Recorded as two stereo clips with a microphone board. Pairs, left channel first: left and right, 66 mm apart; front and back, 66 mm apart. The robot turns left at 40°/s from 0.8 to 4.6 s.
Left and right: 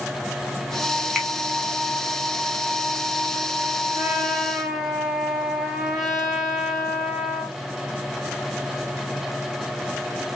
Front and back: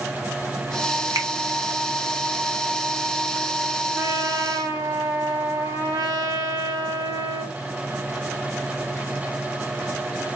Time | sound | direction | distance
1.1 | a finger snap | 175° right | 2 m
4.0 | a trumpet | 150° right | 1.9 m